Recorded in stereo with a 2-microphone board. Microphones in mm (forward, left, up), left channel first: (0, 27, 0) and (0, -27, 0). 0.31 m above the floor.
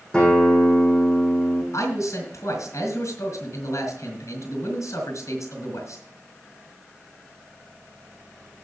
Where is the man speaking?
70° left (ahead or behind), 3.5 m.